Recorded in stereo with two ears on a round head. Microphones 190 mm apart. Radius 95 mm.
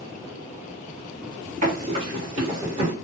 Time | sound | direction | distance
1.6 | running footsteps | 35° right (ahead or behind) | 1.9 m